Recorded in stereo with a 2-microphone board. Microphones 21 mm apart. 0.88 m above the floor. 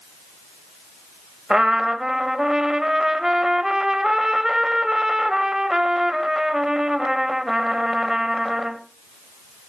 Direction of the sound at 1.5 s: 30° right (ahead or behind).